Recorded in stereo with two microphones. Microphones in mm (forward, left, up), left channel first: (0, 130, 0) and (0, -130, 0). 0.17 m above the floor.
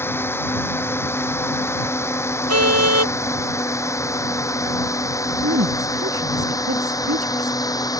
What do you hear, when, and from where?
0.0 s a drone: 10° left (ahead or behind); by 8.0 s 15° left (ahead or behind)
2.5 s a car horn: 75° right (ahead or behind)
5.4 s a woman speaking: 60° right (ahead or behind)